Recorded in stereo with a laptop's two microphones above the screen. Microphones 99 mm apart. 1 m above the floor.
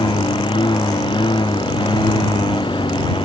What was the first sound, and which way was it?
A lawn mower, 55° left (ahead or behind).